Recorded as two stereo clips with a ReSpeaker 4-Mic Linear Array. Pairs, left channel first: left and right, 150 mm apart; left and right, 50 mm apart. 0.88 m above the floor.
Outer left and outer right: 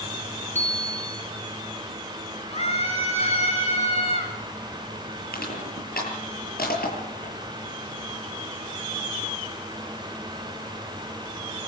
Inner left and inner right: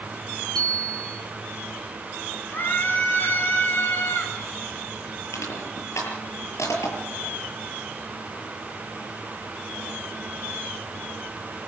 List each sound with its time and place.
0.6 s a bicycle bell: 15° left (ahead or behind), 6.5 m
2.5 s a scream: 45° left (ahead or behind), 6 m
5.3 s crushing: 85° left, 7.5 m